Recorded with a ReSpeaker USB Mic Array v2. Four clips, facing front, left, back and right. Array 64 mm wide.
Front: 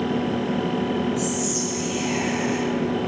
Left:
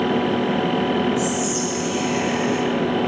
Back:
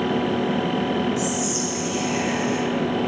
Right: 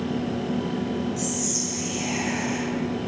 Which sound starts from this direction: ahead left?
Whispering, at 1.2 s.